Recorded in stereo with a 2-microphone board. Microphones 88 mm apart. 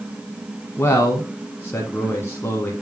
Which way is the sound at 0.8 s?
30° left (ahead or behind).